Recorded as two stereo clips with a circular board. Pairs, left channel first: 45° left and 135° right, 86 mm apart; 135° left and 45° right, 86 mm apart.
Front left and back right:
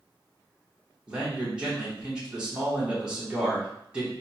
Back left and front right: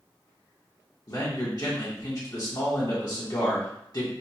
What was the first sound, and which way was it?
A man speaking, 150° left.